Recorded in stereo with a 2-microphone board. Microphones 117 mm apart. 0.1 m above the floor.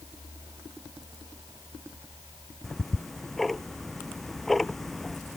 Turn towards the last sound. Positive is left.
turn(degrees=0)  # may be behind; listen again after turning